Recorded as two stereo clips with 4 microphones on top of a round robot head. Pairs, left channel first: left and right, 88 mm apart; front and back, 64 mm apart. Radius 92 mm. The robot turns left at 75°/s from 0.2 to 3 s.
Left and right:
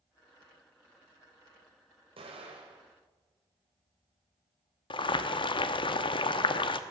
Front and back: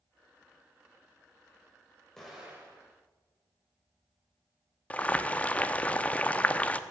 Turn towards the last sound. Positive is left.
turn(degrees=70)